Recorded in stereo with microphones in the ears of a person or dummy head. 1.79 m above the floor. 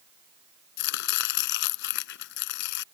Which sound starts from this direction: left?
Chopping, at 0.8 s.